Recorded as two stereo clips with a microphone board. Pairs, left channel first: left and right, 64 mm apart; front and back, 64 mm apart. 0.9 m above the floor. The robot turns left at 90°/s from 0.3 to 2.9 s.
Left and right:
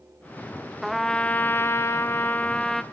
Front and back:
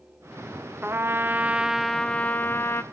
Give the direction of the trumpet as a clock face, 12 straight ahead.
6 o'clock.